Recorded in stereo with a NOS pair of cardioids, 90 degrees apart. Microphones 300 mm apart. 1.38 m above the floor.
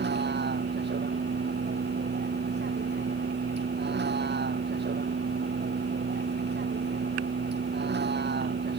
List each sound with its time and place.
0.0 s a vehicle: 35° right